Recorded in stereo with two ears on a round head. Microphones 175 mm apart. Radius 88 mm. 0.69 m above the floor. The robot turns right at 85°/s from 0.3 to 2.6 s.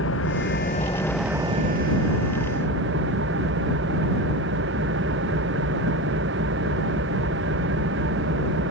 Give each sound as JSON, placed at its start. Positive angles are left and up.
{"t": 0.0, "sound": "an engine running", "azimuth_deg": 105}